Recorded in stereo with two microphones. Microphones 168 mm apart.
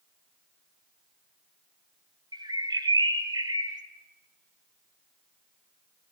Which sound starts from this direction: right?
A bird, at 2.3 s.